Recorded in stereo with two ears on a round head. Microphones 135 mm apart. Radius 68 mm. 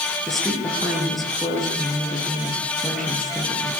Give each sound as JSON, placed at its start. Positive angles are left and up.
{"t": 0.3, "sound": "a woman speaking", "side_deg": 0, "distance_m": 8.5}